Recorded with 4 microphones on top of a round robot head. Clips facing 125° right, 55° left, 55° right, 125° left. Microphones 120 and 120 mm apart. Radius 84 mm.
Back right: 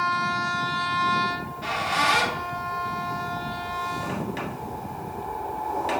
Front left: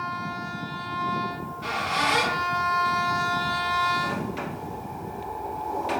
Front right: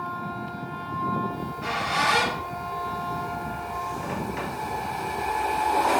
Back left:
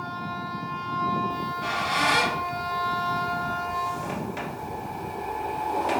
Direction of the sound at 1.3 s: 165° right.